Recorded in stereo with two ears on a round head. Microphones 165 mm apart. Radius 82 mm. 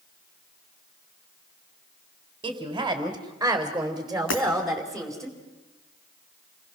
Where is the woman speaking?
25° right (ahead or behind), 3 m; by 5.3 s 5° left (ahead or behind), 4 m.